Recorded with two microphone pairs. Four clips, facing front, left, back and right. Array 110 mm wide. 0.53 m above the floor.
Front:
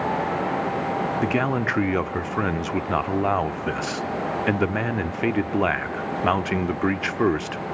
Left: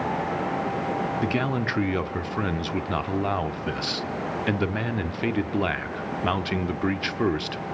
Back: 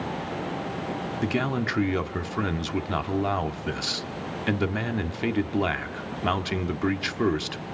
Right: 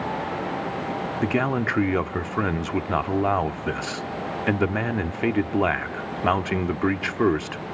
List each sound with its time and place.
1.2 s a man speaking: 50° right, 0.8 m